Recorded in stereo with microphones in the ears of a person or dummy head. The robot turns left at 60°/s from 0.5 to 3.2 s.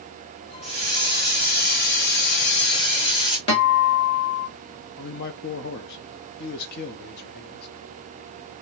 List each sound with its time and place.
0.6 s a hiss: straight behind, 3 m; by 3.4 s 25° left, 3 m
3.5 s a guitar: 30° left (ahead or behind), 2.5 m
5.0 s a man speaking: 55° left (ahead or behind), 0.6 m